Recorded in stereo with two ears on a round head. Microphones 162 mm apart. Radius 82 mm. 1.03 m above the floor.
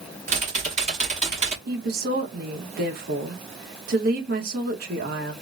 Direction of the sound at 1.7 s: 55° right (ahead or behind).